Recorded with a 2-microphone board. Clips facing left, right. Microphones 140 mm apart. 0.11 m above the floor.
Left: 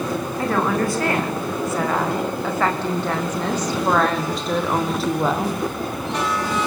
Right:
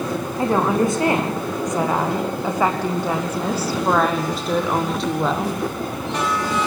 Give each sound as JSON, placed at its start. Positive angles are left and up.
{"t": 0.4, "sound": "a woman speaking", "side_deg": -20, "distance_m": 7.5}